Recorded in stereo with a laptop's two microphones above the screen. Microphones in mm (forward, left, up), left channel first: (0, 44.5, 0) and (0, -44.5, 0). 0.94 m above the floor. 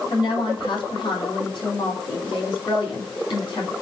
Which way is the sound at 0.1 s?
65° left (ahead or behind).